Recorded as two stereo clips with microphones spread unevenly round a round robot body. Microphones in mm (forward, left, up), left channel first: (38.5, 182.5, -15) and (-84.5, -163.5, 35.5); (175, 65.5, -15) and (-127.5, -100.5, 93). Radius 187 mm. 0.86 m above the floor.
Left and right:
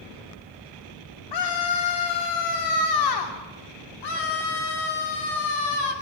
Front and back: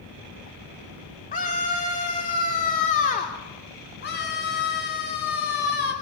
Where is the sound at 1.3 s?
90° left, 2.5 m.